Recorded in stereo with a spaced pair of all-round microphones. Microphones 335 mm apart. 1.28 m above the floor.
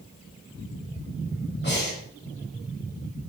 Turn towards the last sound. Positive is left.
turn(degrees=30)  # may be behind; listen again after turning